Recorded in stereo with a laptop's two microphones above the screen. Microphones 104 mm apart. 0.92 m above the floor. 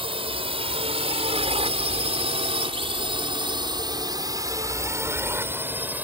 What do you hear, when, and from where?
0.0 s a drone: 65° right (ahead or behind); by 6.0 s 15° right (ahead or behind)